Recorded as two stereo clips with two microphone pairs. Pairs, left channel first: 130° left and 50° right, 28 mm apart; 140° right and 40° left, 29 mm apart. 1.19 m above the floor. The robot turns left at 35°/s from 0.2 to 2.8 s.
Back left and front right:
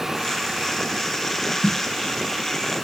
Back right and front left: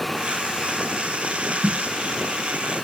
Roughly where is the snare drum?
Left.